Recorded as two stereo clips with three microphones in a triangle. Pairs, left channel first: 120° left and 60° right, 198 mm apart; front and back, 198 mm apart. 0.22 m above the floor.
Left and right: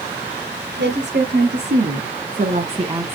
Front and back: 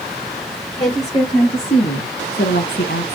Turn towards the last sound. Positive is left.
turn(degrees=15)